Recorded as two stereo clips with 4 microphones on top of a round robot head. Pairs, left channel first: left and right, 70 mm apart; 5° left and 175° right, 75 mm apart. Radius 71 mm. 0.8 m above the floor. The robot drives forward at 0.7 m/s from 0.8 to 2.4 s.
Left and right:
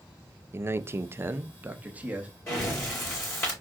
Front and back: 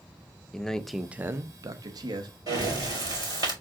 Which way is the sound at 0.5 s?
70° right.